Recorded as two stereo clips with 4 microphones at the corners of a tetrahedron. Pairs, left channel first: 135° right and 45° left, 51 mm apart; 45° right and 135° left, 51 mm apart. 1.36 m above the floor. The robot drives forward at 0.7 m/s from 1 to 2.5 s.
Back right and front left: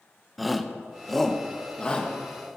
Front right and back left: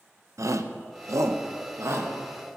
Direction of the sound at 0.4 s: 135° left.